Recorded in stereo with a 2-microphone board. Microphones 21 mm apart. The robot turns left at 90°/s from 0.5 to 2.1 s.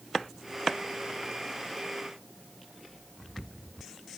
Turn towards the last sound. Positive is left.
No sound to turn to.